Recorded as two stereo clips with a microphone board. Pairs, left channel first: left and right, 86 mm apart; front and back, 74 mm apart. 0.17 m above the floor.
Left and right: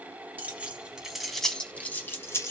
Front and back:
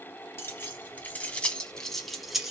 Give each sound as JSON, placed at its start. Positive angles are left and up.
{"t": 0.4, "sound": "keys jangling", "azimuth_deg": -35, "distance_m": 1.1}